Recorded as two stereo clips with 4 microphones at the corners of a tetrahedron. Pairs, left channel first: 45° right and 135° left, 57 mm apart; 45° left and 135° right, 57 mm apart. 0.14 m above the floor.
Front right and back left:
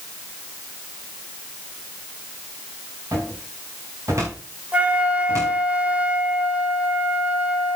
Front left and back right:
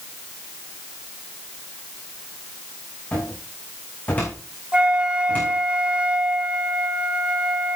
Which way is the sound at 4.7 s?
175° left.